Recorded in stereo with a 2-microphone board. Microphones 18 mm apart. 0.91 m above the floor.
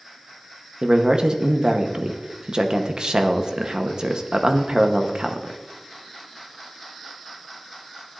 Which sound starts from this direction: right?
A man speaking, at 0.8 s.